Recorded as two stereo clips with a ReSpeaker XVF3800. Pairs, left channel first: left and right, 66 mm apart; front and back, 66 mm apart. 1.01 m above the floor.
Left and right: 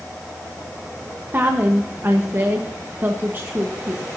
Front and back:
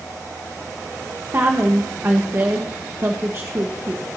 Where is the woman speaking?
135° right, 1.3 m.